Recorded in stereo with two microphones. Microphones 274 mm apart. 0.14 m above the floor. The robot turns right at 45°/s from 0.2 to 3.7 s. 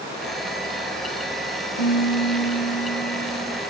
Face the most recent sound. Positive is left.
turn(degrees=150)